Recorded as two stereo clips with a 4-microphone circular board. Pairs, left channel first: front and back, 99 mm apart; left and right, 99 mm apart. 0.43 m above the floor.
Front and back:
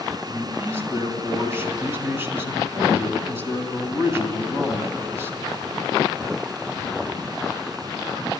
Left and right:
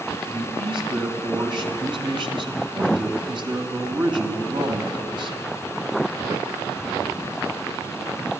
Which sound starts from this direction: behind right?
A man speaking, at 0.3 s.